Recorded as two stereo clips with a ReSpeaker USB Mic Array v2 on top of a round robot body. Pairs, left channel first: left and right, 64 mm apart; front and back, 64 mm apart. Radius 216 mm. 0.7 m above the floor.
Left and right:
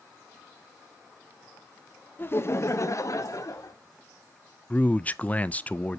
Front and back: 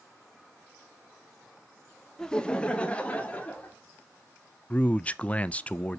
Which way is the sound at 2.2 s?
75° left.